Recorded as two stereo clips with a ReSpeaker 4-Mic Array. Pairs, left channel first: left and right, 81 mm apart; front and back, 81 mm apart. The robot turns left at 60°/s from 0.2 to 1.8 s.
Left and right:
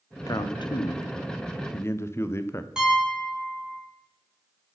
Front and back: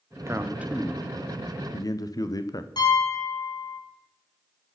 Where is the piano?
10° right, 3.5 m.